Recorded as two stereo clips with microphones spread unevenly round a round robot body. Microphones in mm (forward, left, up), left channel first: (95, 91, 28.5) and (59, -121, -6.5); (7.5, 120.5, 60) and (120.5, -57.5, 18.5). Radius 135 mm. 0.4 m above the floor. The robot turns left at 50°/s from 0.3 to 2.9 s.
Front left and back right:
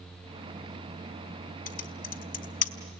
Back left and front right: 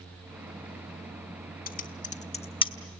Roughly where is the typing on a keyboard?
Left.